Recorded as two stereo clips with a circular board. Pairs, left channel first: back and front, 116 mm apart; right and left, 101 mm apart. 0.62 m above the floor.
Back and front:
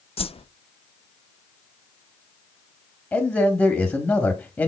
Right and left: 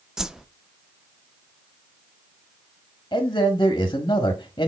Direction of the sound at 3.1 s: 115° right.